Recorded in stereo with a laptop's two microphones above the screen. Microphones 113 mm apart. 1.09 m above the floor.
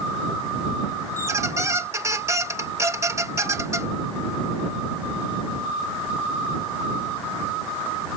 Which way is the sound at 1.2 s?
25° right (ahead or behind).